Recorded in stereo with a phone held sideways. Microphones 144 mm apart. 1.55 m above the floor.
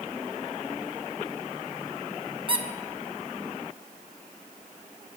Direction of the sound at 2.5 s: 35° right (ahead or behind).